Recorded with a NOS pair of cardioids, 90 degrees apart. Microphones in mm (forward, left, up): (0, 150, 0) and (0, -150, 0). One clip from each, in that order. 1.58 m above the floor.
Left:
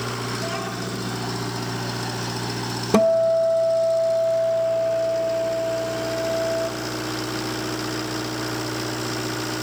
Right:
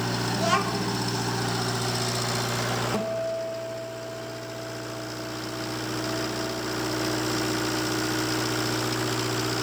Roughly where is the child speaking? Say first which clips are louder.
Right 3 dB; ahead right.